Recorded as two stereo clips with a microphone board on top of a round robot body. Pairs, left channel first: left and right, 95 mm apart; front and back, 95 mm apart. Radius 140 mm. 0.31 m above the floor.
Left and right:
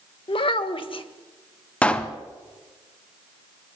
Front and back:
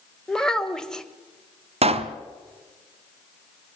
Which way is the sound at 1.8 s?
170° left.